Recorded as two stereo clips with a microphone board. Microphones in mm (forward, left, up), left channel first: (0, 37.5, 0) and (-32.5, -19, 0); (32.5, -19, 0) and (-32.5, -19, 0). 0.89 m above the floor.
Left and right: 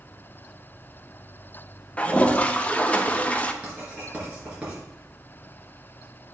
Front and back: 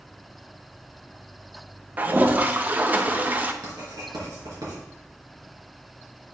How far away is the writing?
About 3.5 m.